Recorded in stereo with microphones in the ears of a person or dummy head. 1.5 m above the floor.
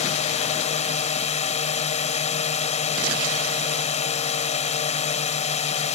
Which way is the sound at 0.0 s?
30° left (ahead or behind).